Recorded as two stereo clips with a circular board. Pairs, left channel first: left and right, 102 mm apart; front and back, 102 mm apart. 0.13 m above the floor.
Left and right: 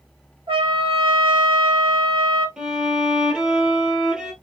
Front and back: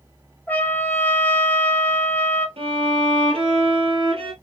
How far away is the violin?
About 1.4 m.